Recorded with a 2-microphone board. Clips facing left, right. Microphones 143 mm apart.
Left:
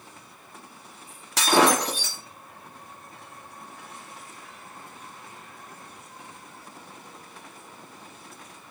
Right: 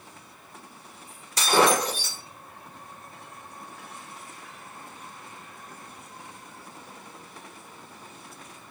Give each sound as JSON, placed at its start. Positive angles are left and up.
{"t": 1.4, "sound": "breaking glass", "side_deg": 80, "distance_m": 1.9}